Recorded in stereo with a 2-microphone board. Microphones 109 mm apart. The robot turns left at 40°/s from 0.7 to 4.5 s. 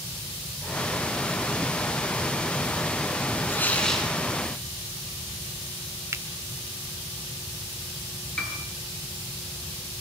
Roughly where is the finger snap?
Right.